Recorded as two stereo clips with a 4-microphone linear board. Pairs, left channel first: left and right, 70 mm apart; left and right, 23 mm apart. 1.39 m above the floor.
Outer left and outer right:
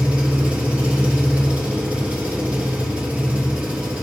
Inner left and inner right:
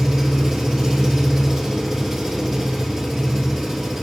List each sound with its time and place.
0.0 s an engine running: 20° right (ahead or behind), 2.5 m